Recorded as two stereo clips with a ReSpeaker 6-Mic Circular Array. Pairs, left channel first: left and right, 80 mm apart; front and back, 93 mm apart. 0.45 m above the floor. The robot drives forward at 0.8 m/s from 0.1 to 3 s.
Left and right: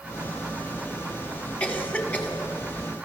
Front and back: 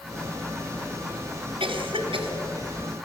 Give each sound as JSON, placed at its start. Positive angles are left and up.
{"t": 1.6, "sound": "a cough", "azimuth_deg": 160, "distance_m": 2.5}